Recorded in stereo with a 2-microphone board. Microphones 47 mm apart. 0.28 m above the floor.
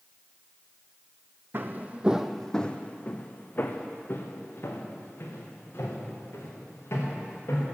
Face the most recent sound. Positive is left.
turn(degrees=65)  # may be behind; listen again after turning